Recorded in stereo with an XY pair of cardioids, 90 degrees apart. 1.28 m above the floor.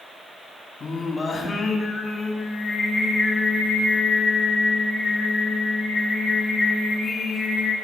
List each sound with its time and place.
0.8 s singing: 40° left, 2.5 m